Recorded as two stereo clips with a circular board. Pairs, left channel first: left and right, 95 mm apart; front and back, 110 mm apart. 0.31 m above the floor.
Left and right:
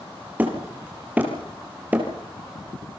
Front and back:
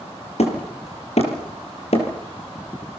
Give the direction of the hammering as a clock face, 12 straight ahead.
1 o'clock.